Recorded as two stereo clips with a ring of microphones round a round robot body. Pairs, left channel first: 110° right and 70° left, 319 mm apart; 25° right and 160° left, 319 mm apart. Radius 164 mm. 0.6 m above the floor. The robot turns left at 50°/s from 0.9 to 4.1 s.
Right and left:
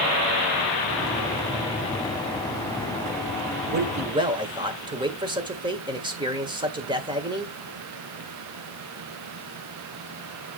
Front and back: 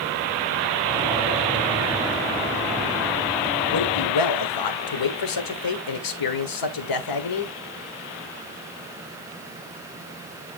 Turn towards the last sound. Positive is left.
turn(degrees=-10)